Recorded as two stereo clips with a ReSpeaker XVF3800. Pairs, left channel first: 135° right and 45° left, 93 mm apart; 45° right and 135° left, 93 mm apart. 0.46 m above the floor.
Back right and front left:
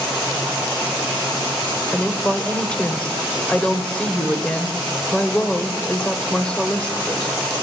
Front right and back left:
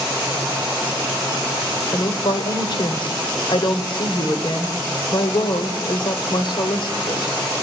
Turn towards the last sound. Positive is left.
turn(degrees=-60)